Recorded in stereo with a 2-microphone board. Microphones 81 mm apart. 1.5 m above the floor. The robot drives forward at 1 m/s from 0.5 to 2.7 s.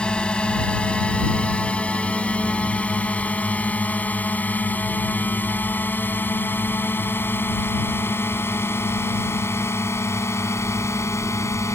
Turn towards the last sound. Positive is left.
turn(degrees=35)  # may be behind; listen again after turning